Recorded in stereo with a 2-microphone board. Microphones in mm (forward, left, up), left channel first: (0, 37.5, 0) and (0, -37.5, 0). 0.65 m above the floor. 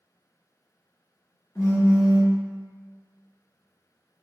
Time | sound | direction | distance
1.6 | a phone buzzing | 40° left (ahead or behind) | 1.1 m